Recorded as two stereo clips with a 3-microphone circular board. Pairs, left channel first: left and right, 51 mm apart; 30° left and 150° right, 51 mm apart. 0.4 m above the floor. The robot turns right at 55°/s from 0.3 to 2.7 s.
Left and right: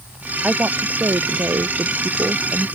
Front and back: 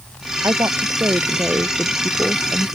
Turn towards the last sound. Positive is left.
turn(degrees=-25)